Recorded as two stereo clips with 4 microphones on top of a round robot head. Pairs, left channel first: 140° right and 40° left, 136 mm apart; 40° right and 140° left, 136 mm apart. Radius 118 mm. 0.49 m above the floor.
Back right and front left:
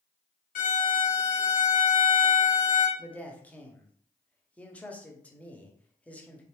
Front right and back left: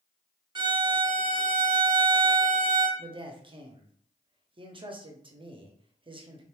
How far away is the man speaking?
About 0.9 m.